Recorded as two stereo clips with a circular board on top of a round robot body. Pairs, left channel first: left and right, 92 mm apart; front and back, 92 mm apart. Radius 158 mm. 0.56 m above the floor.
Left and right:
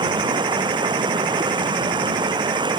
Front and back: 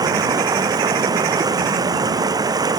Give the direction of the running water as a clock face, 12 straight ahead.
4 o'clock.